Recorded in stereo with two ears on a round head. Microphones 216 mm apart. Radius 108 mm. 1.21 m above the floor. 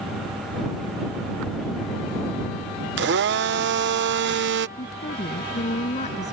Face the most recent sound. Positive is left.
turn(degrees=30)  # may be behind; listen again after turning